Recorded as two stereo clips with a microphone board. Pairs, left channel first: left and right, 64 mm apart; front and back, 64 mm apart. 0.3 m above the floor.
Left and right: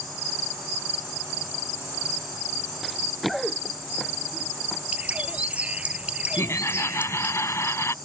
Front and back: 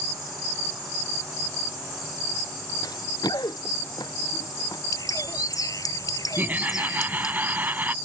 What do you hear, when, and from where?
2.8 s running footsteps: straight ahead; by 4.8 s 5° left
4.9 s a bird: 20° right
6.4 s laughter: 125° left